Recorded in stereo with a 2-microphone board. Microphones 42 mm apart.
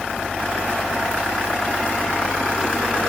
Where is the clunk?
I don't hear a clunk.